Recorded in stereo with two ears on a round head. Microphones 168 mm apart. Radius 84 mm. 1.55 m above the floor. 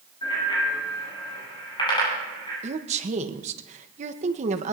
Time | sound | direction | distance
0.2 | a bicycle bell | 25° left (ahead or behind) | 9.5 m
2.6 | a woman speaking | 40° right (ahead or behind) | 1.1 m